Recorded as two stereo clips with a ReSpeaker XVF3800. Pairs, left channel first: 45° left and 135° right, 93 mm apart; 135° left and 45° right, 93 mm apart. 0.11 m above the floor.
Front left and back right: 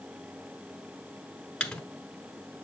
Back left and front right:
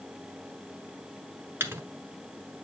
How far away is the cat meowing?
No cat meowing in this recording.